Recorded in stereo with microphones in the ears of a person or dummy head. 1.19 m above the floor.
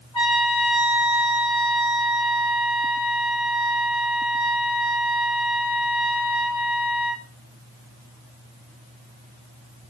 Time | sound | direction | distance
0.1 | a trumpet | 25° left (ahead or behind) | 3.5 m